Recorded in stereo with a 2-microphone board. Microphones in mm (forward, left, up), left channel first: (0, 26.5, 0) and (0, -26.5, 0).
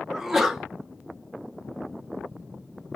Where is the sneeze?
5° right (ahead or behind), 0.6 m.